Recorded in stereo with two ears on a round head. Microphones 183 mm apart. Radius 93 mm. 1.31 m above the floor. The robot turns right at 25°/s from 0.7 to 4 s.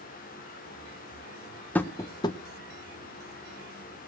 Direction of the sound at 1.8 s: 10° left (ahead or behind).